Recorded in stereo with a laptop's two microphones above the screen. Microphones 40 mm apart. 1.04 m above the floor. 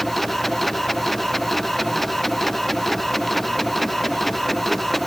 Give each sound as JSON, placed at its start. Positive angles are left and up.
{"t": 0.0, "sound": "a machine running", "side_deg": 5}